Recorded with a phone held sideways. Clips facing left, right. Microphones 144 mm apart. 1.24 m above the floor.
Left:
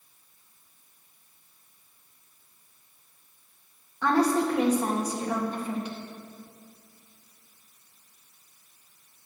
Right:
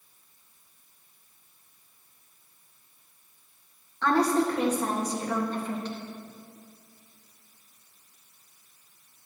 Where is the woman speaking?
10° left (ahead or behind), 1.6 m.